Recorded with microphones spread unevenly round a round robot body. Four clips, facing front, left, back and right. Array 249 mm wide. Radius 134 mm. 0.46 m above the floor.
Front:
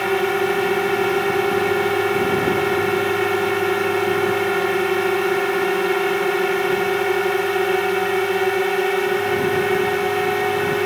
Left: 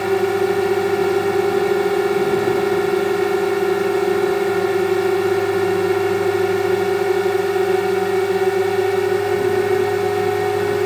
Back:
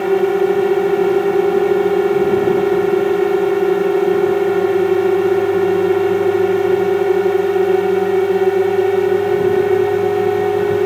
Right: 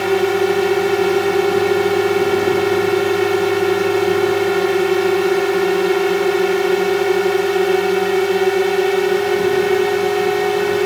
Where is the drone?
170° right.